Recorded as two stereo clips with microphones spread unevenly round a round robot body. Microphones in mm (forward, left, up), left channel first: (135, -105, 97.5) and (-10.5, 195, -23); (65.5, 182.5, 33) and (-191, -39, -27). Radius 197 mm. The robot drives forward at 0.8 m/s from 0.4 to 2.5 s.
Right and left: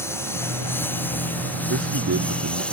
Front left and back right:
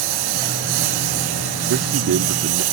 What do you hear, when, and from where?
0.0 s a lawn mower: 145° right; by 2.7 s 150° right
1.7 s a man speaking: 175° left